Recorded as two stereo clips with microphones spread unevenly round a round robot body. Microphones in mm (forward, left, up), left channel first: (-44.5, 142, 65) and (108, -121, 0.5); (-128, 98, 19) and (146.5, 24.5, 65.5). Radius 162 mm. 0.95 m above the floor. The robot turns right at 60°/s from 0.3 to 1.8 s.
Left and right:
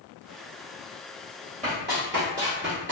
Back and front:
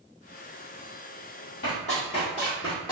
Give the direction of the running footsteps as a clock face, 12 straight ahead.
4 o'clock.